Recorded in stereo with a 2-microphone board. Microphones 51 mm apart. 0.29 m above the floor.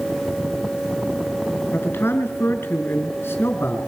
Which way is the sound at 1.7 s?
50° left (ahead or behind).